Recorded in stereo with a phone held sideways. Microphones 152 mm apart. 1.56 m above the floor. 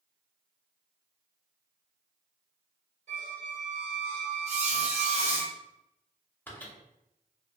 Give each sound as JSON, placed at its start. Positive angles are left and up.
{"t": 3.1, "sound": "a squeak", "side_deg": -45, "distance_m": 1.6}
{"t": 4.5, "sound": "a squeak", "side_deg": -45, "distance_m": 0.7}
{"t": 6.5, "sound": "a microwave", "side_deg": 15, "distance_m": 0.6}